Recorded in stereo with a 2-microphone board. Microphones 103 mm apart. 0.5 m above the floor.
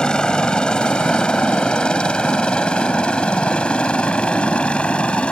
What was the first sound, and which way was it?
A helicopter, 10° left (ahead or behind).